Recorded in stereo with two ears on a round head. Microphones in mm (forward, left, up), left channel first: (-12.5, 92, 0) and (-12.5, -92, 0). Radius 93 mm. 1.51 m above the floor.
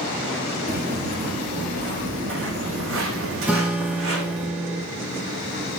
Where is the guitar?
5° right (ahead or behind), 1.5 m.